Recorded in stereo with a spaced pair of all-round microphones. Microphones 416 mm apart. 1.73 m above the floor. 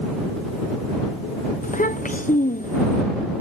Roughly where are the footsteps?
I don't hear footsteps.